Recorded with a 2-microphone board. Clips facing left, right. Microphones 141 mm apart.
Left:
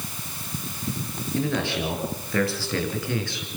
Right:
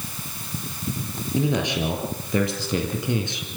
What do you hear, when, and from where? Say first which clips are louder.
1.4 s a man speaking: right 2 dB; 15° right (ahead or behind), 5.5 m; by 3.5 s 20° right (ahead or behind), 3.5 m